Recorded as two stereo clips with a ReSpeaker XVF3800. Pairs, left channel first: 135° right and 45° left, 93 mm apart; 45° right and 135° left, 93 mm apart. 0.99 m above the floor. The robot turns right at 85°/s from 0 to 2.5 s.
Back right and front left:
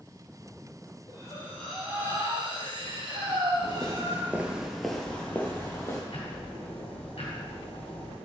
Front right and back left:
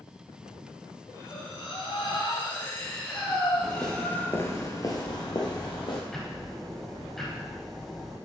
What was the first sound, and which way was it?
Breathing, 100° right.